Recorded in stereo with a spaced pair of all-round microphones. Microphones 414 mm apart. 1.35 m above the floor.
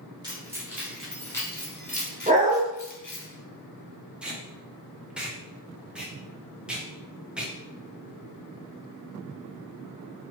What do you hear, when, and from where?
0.2 s keys jangling: 10° right (ahead or behind), 1.6 m; by 3.3 s 55° left (ahead or behind), 1.0 m
2.3 s a dog barking: 20° right (ahead or behind), 0.8 m
4.2 s tape being pulled: 5° right (ahead or behind), 0.7 m